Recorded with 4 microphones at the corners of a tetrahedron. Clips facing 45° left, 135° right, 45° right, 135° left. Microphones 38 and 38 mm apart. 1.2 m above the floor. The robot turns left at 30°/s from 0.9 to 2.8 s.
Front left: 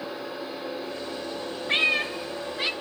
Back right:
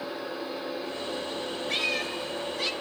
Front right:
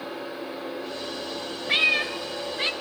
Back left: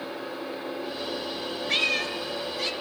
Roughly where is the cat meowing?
Ahead left.